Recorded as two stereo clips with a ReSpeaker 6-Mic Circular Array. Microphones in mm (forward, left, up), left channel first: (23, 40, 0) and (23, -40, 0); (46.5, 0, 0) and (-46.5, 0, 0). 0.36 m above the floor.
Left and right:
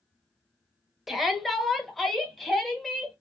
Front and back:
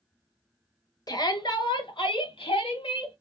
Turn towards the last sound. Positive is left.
turn(degrees=5)